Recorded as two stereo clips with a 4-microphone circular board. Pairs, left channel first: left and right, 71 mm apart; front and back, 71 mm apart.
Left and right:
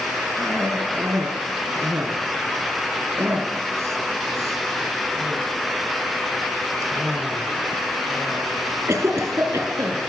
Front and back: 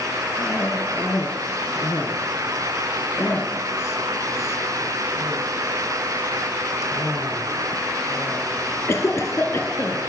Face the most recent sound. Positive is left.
turn(degrees=-50)